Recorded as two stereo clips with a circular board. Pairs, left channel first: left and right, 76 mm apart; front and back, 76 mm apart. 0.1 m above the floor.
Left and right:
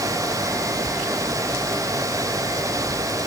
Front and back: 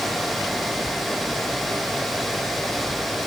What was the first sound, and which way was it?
Only background noise.